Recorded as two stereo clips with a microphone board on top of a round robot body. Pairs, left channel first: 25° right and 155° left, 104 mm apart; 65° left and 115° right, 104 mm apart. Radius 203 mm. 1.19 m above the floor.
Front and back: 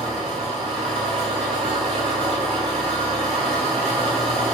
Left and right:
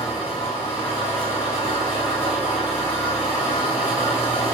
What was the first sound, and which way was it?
An engine running, 120° left.